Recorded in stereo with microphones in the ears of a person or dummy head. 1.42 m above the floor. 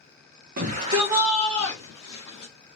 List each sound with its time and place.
0.6 s a shout: 55° right (ahead or behind), 1.0 m; by 2.5 s 30° left (ahead or behind), 2.5 m